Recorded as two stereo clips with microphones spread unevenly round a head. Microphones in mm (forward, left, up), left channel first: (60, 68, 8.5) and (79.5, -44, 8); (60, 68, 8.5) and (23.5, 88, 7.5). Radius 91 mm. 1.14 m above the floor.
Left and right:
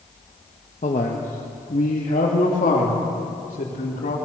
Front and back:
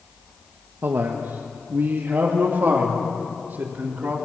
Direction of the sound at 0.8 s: 140° left.